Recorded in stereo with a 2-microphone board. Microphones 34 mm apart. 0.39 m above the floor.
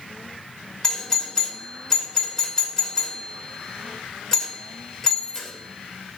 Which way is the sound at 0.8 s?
20° left (ahead or behind).